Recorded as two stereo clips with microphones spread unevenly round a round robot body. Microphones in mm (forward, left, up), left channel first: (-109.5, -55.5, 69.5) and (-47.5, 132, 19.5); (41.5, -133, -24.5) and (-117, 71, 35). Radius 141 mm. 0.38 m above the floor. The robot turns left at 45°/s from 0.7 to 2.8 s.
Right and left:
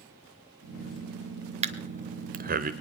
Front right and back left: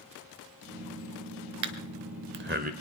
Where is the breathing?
110° left, 0.9 m; by 2.7 s 60° left, 0.9 m.